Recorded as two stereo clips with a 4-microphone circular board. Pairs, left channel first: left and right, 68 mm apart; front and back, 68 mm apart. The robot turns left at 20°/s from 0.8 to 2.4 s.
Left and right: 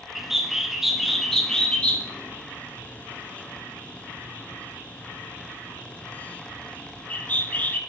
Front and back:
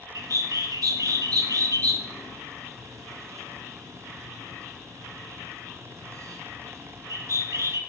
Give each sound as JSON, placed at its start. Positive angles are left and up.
{"t": 0.1, "sound": "a bird", "azimuth_deg": -175, "distance_m": 0.8}